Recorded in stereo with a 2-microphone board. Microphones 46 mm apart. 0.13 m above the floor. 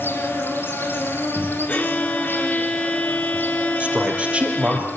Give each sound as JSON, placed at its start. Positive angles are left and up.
{"t": 0.0, "sound": "an insect", "side_deg": 55, "distance_m": 4.0}
{"t": 1.7, "sound": "a violin", "side_deg": 30, "distance_m": 1.9}
{"t": 3.8, "sound": "a man speaking", "side_deg": -25, "distance_m": 3.5}